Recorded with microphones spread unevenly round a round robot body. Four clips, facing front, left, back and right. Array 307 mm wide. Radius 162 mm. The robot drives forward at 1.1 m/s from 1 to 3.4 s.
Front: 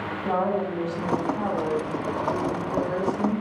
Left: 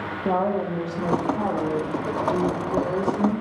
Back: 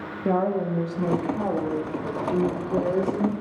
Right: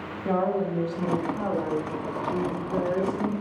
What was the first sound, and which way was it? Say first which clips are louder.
A woman speaking: left 2 dB, back 2 dB; 150° left.